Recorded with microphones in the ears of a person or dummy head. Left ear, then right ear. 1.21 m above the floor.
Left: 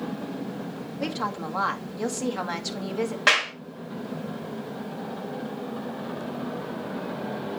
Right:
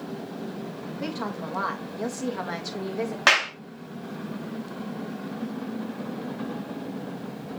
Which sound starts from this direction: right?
A clap, at 3.3 s.